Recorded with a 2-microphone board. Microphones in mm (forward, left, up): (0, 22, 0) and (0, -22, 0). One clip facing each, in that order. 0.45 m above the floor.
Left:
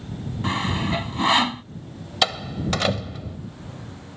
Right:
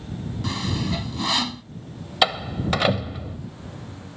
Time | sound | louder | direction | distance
0.4 | sawing | left 3 dB | 30° left (ahead or behind) | ?
2.2 | a door slam | right 2 dB | 10° right (ahead or behind) | ?